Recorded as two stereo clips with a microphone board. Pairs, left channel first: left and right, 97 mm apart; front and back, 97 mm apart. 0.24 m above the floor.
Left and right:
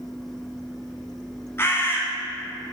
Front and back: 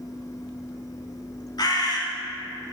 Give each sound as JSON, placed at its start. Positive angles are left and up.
{"t": 1.6, "sound": "a bird", "azimuth_deg": 30, "distance_m": 1.3}